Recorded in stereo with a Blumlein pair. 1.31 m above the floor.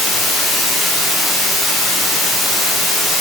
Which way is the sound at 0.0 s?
5° left.